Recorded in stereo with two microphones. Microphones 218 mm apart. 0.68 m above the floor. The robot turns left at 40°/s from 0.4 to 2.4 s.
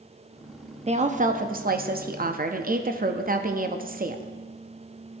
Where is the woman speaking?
45° right, 0.6 m; by 4.2 s 105° right, 0.6 m.